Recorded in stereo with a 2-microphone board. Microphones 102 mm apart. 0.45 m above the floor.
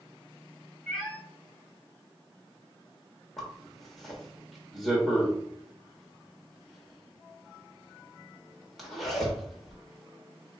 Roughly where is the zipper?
Centre.